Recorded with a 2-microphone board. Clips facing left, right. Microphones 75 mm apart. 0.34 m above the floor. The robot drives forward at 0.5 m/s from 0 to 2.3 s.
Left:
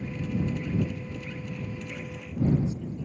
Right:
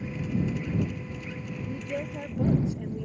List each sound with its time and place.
1.7 s a woman speaking: 75° right (ahead or behind)